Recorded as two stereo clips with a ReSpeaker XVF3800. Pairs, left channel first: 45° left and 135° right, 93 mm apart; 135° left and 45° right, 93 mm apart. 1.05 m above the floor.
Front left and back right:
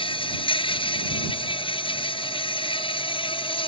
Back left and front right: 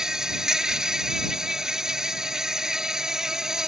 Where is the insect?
40° left.